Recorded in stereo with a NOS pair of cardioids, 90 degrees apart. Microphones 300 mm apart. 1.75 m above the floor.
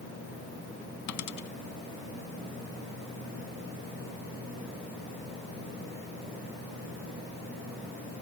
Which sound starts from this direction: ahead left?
A dropped coin, at 1.1 s.